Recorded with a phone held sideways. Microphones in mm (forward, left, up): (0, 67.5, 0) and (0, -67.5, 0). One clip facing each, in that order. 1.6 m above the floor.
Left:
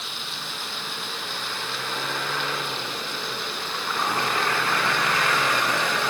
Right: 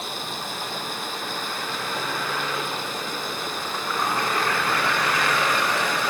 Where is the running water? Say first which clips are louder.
Right 6 dB; 45° right (ahead or behind).